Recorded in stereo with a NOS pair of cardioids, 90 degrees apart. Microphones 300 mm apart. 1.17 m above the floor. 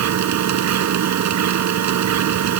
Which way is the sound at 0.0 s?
65° right.